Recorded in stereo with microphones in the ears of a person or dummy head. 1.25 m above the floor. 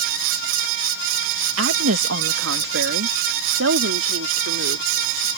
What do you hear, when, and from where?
1.6 s a woman speaking: 75° right (ahead or behind); by 4.9 s 80° right